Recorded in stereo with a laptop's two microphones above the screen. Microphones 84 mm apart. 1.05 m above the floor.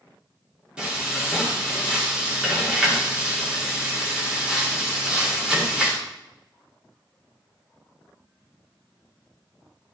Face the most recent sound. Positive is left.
turn(degrees=-10)  # may be behind; listen again after turning